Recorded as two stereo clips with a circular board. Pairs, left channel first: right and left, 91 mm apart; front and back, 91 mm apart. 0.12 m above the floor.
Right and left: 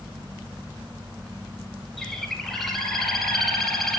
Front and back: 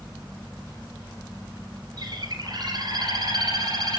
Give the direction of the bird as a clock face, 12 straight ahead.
6 o'clock.